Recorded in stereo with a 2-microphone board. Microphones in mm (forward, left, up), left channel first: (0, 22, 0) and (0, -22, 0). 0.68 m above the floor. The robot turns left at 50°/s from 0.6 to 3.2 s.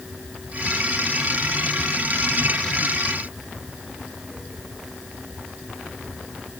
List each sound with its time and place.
Only background noise.